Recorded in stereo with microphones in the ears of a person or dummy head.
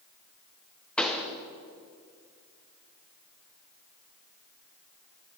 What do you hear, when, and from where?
1.0 s a pop: 5° left (ahead or behind), 0.9 m